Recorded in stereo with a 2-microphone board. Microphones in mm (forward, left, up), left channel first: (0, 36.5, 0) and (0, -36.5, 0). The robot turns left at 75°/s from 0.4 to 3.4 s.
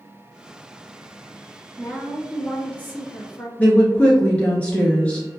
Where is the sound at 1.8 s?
145° right, 1.9 m; by 3.5 s 95° left, 1.9 m.